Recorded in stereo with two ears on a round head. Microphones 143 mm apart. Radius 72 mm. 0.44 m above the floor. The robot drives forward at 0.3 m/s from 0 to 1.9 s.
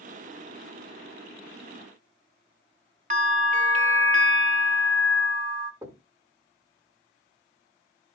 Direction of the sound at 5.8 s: 20° right (ahead or behind).